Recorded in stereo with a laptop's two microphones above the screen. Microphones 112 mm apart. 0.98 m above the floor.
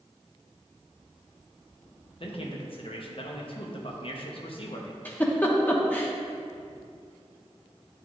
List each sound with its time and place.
2.2 s a man speaking: 55° left (ahead or behind), 0.7 m
5.0 s a giggle: 15° left (ahead or behind), 0.9 m